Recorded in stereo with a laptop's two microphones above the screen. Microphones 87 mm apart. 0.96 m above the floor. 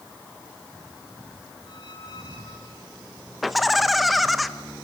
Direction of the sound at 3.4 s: Centre (ahead or behind).